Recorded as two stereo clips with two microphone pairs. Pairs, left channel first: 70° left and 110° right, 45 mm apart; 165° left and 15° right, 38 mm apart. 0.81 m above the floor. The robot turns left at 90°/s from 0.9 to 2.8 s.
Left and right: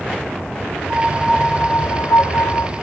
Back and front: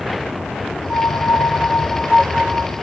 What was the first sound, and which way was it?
A piano, 160° right.